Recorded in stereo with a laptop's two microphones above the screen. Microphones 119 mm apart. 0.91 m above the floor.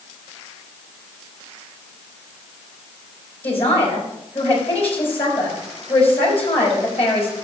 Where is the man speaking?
55° left (ahead or behind), 4.5 m.